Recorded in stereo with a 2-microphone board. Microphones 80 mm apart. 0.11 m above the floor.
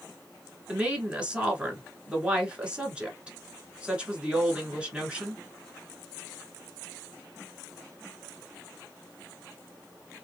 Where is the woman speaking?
15° right (ahead or behind), 1.2 m.